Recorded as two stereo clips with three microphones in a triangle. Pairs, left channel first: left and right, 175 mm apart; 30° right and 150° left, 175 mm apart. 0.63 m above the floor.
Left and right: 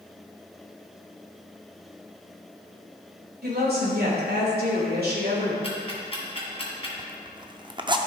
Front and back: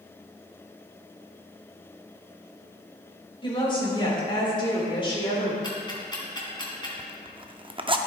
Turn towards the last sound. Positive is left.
turn(degrees=-150)